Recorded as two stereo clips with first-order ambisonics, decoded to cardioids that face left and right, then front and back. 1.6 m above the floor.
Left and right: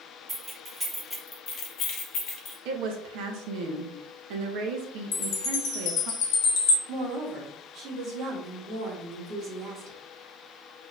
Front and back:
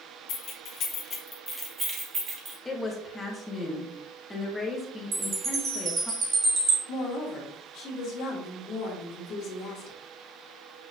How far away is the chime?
About 1.2 m.